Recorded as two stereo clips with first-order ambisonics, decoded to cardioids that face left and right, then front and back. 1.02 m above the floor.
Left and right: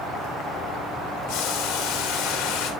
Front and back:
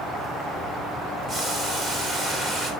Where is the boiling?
105° left, 3 m.